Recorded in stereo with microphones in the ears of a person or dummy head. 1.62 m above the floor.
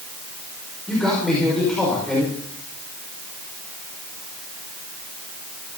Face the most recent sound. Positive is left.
turn(degrees=0)  # may be behind; listen again after turning